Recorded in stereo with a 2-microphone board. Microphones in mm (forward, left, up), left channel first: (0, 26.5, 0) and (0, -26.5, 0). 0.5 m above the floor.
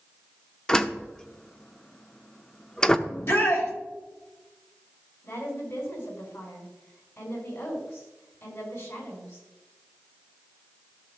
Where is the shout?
55° left (ahead or behind), 2.5 m.